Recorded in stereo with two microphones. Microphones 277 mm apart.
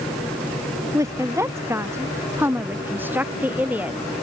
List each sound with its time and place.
0.9 s a woman speaking: 10° right (ahead or behind); by 4.0 s 5° right (ahead or behind)